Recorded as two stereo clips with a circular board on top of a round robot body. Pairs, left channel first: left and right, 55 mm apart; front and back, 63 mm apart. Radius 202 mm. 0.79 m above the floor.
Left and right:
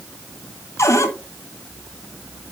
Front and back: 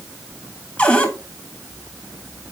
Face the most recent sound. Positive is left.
turn(degrees=65)